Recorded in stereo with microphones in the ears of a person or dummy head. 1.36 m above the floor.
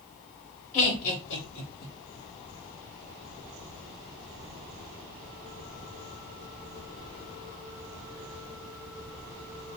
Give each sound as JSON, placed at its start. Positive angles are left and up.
{"t": 0.7, "sound": "laughter", "side_deg": 25, "distance_m": 1.0}